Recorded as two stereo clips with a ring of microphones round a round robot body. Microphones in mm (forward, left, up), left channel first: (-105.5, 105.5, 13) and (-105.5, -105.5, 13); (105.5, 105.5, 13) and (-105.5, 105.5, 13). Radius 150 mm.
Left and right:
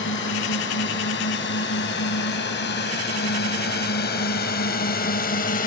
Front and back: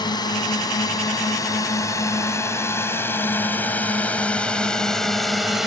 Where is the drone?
65° left; by 5.7 s 95° left.